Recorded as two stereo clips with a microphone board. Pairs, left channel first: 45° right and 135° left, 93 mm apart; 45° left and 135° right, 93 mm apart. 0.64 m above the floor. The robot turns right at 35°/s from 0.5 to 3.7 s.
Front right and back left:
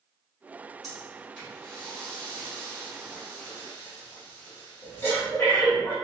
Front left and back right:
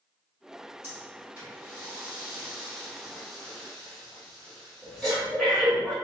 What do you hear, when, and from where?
0.8 s breathing: 130° right, 1.1 m; by 5.9 s 30° right, 1.1 m